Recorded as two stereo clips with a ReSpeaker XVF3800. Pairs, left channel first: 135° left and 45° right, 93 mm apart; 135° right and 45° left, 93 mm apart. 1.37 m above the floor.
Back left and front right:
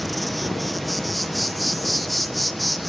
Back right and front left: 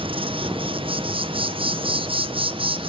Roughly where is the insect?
Ahead left.